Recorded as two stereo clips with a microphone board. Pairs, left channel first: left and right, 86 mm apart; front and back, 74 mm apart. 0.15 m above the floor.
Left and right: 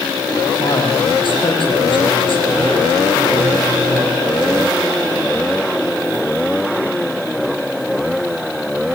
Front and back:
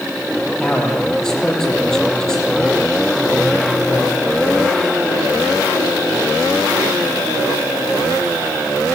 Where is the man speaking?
80° left, 5.5 m.